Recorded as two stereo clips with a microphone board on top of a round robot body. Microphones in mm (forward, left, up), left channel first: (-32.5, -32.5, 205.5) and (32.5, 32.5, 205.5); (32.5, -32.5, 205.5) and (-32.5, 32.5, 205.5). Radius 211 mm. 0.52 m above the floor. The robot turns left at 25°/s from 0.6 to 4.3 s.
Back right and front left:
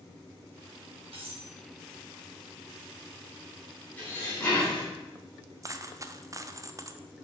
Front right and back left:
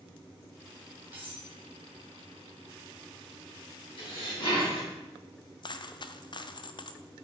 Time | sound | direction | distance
1.1 | cutlery clinking | 65° left | 3 m
4.0 | dishes clattering | 60° right | 4 m
5.6 | a dropped coin | 10° right | 0.6 m